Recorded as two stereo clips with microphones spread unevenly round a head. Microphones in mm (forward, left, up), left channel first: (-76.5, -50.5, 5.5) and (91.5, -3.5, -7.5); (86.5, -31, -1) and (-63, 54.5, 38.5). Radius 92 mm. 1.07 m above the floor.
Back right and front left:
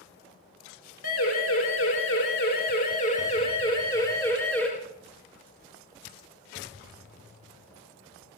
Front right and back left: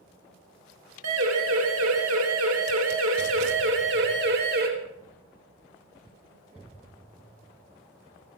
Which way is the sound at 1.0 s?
175° left.